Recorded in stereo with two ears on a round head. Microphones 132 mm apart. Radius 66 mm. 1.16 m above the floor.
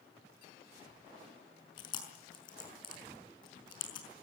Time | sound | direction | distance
1.8 | chewing | 30° left (ahead or behind) | 5.5 m